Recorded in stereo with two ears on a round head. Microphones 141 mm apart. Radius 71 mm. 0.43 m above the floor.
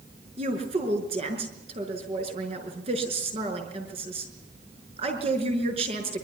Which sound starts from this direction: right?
A woman speaking, at 0.4 s.